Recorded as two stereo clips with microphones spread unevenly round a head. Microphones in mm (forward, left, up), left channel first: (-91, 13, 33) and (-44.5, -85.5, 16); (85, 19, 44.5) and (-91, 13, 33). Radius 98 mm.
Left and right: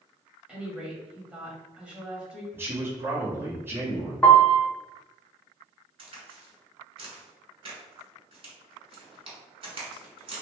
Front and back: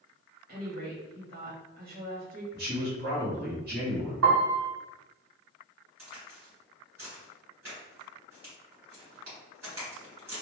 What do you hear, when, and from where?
0.5 s a woman speaking: 145° right, 1.4 m
2.5 s a man speaking: 135° right, 1.2 m
4.2 s a piano: 170° right, 0.8 m
6.0 s a crack: 100° right, 1.6 m